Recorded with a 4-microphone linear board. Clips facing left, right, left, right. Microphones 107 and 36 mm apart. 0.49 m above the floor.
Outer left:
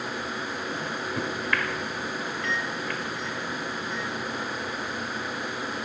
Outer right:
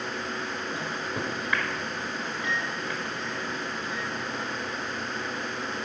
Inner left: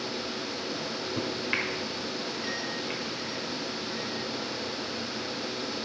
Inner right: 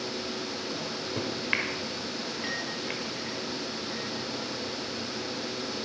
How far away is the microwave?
About 1.4 m.